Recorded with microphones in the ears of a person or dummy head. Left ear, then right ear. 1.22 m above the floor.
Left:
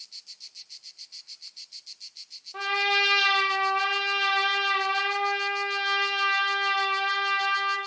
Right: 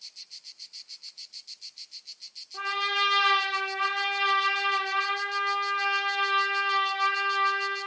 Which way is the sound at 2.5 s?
45° left (ahead or behind).